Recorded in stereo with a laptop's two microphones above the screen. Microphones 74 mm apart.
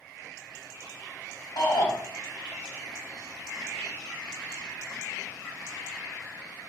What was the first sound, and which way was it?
A shout, 75° left (ahead or behind).